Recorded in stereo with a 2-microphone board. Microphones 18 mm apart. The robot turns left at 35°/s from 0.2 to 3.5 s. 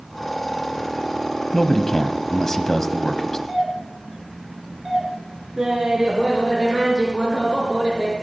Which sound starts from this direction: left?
A man speaking, at 1.5 s.